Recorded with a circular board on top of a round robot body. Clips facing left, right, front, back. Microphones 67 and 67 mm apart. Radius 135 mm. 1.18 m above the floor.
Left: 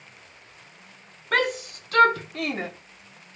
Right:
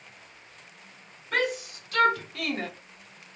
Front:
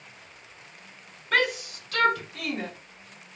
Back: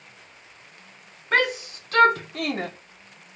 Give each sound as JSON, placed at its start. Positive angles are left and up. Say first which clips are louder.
{"t": 1.3, "sound": "a shout", "louder": "left 4 dB, back 2 dB", "azimuth_deg": 115, "distance_m": 1.7}